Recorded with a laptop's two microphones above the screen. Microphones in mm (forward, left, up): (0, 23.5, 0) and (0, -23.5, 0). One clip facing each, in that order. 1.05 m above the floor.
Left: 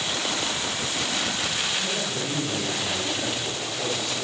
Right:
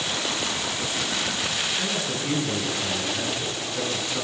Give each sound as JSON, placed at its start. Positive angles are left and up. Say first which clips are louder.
{"t": 1.8, "sound": "a man speaking", "louder": "right 1 dB", "side_deg": -30, "distance_m": 8.5}